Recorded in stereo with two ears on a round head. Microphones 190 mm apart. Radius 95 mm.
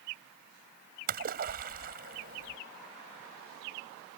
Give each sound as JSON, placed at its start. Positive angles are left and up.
{"t": 1.1, "sound": "a splash", "side_deg": -45}